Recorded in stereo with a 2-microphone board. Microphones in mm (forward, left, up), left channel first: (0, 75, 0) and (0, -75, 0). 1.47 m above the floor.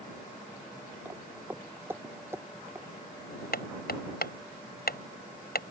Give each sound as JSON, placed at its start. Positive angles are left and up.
{"t": 1.1, "sound": "footsteps", "side_deg": -10}
{"t": 3.5, "sound": "hammering", "side_deg": 80}